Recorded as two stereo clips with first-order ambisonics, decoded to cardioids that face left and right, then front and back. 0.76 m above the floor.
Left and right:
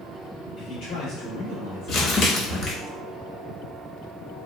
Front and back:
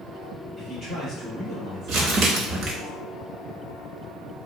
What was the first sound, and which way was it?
A man speaking, 90° left.